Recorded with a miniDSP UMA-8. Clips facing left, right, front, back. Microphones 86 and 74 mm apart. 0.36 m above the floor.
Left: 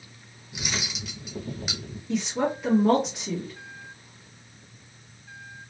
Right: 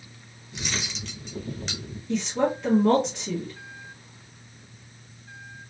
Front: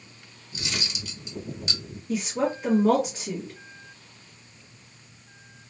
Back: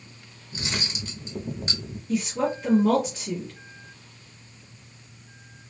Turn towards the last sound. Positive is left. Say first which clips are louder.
# right 2 dB, back 1 dB
turn(degrees=20)